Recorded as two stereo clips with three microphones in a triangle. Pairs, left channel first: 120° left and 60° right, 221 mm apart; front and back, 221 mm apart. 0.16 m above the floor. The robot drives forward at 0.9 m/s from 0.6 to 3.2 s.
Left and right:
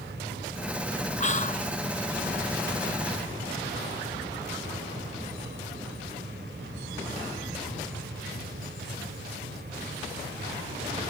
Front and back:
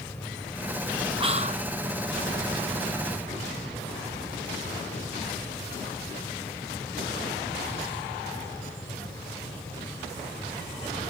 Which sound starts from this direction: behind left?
Whispering, at 1.2 s.